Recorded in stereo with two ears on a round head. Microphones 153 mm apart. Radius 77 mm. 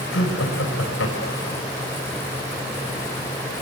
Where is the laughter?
85° left, 6 m.